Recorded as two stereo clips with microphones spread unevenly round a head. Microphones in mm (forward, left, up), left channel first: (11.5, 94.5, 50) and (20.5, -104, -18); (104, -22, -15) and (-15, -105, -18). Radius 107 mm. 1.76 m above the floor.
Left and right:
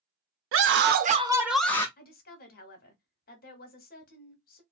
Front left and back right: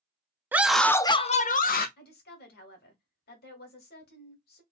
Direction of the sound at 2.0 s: 55° left.